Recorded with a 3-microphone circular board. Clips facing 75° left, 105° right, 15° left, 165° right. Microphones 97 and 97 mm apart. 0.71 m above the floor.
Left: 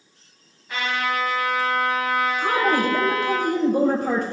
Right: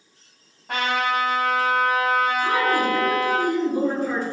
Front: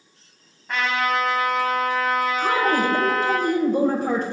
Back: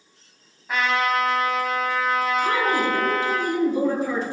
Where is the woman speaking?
50° left, 3 m.